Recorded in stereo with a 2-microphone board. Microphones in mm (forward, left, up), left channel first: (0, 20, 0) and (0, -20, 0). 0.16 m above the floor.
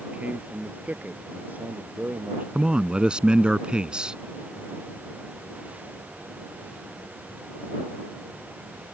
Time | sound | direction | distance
0.1 | a man speaking | 40° right (ahead or behind) | ?
2.5 | a man speaking | 25° right (ahead or behind) | ?